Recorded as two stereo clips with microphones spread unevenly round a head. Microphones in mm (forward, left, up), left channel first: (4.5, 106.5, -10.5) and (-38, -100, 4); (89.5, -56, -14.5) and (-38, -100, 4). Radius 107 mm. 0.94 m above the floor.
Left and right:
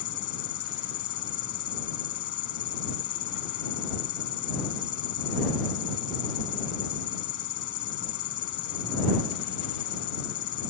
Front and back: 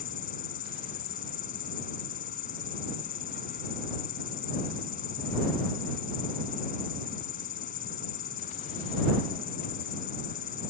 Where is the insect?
55° left.